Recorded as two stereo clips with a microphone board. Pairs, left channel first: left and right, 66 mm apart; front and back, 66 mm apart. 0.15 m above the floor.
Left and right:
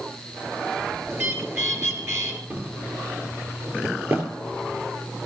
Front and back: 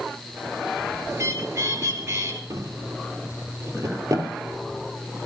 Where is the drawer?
145° right, 2.5 m.